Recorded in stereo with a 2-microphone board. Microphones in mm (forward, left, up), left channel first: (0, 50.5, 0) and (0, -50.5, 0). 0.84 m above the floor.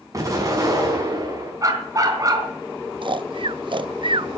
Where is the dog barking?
35° right (ahead or behind), 3.5 m.